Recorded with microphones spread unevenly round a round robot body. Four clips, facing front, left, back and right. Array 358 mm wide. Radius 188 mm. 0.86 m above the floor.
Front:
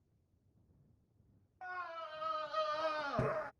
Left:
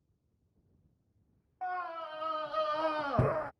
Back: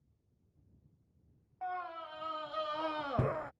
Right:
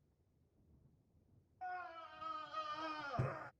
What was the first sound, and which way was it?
A scream, 90° left.